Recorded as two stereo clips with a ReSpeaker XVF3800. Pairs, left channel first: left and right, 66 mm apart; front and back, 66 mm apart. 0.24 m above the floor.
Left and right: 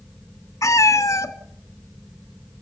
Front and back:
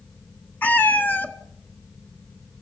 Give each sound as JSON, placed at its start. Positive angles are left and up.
{"t": 0.6, "sound": "a cat meowing", "azimuth_deg": 60, "distance_m": 1.2}